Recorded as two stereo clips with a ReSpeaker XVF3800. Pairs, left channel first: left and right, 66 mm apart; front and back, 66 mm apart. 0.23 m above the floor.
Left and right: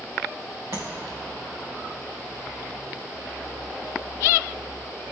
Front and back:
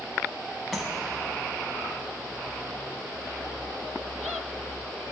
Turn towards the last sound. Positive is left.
turn(degrees=-95)